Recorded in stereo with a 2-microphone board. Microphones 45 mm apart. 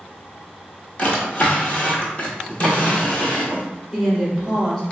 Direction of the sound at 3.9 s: 15° left (ahead or behind).